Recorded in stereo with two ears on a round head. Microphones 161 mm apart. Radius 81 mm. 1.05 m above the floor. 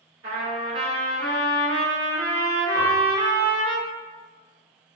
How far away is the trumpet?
About 1.5 m.